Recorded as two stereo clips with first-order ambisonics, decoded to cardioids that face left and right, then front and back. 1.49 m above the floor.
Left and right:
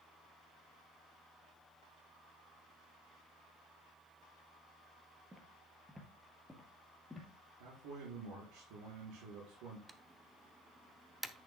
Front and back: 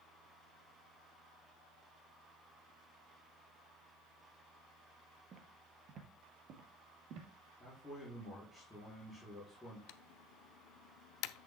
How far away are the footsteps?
About 1.6 m.